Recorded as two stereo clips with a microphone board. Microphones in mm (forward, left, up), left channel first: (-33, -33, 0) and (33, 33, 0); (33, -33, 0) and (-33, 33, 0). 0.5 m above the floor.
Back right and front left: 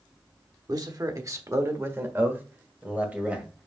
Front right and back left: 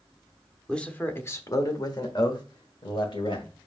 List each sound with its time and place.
0.7 s a man speaking: 30° left, 0.9 m; by 3.5 s 30° right, 2 m